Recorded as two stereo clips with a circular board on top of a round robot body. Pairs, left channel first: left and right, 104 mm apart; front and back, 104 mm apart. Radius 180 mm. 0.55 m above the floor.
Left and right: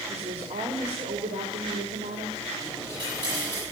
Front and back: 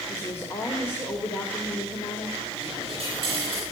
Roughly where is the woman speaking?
Right.